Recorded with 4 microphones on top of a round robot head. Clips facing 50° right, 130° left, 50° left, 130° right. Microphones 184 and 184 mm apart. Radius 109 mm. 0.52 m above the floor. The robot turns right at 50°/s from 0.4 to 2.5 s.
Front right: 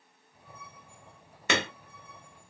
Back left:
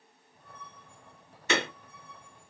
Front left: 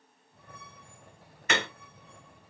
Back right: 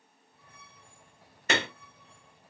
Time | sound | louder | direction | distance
1.5 | hammering | even, back right 1 dB | 75° right | 1.7 m